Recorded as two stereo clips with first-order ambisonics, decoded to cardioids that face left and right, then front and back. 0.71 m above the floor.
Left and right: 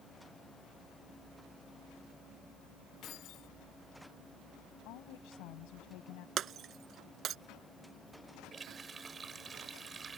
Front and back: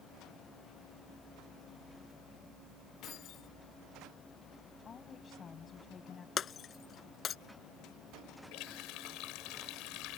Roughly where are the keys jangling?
Ahead left.